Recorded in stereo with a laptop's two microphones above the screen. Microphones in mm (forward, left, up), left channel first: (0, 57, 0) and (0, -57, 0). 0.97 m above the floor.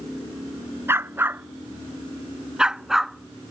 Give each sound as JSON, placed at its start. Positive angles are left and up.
{"t": 0.9, "sound": "a dog barking", "side_deg": -20}